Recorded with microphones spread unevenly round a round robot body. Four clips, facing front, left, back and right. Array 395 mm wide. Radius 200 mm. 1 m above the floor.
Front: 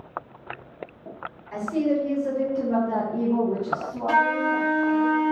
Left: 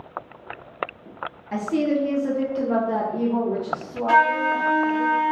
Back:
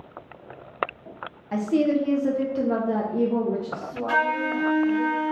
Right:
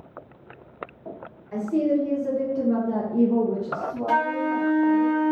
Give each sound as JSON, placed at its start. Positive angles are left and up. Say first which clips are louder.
{"t": 1.5, "sound": "a woman speaking", "louder": "even, back 2 dB", "azimuth_deg": 130, "distance_m": 1.0}
{"t": 4.1, "sound": "a flute", "louder": "left 5 dB, front 3 dB", "azimuth_deg": -40, "distance_m": 0.9}